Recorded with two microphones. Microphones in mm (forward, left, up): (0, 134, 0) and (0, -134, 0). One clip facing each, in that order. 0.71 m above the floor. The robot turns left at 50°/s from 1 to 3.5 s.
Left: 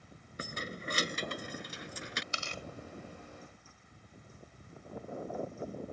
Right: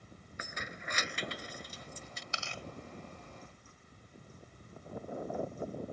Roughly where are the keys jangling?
Left.